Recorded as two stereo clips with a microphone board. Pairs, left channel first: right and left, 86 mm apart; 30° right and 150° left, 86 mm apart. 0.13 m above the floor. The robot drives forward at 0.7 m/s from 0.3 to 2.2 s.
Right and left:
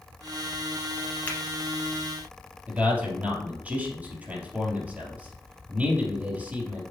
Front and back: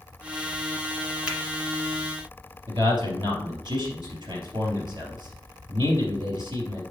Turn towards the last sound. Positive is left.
turn(degrees=160)